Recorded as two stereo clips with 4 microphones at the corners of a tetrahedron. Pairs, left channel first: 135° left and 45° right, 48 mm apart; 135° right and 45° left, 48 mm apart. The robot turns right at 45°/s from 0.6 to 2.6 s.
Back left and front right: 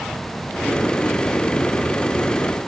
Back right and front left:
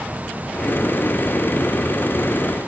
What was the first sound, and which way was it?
Only background noise.